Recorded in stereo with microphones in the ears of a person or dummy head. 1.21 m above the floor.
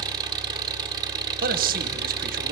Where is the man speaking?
45° right (ahead or behind), 1.2 m.